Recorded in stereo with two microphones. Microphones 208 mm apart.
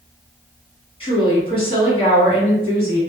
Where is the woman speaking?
25° left (ahead or behind), 1.8 m.